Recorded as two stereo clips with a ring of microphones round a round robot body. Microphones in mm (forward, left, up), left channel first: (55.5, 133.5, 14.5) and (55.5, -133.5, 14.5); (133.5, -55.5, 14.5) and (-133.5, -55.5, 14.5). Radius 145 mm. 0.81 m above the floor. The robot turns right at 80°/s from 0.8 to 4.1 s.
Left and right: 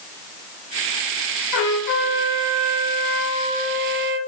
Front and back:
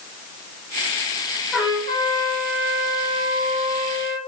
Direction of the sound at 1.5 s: 85° left.